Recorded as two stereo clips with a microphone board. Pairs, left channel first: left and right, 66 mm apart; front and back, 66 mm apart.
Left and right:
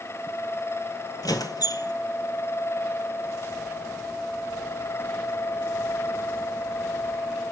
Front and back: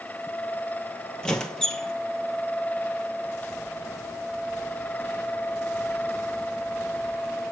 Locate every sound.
1.2 s a squeak: 80° left, 1.8 m